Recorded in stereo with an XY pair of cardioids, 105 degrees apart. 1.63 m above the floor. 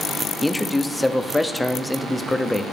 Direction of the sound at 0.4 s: 10° left.